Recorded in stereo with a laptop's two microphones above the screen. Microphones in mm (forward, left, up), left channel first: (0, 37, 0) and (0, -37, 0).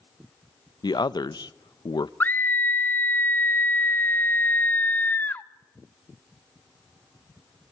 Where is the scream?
25° left (ahead or behind), 1.1 m.